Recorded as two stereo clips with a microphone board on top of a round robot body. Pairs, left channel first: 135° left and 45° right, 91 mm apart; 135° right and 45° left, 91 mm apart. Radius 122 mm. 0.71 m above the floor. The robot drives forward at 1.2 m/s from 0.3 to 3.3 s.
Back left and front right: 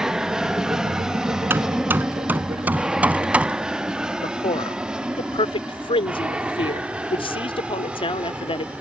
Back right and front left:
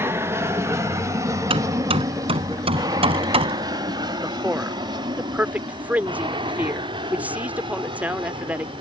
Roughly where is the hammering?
Ahead left.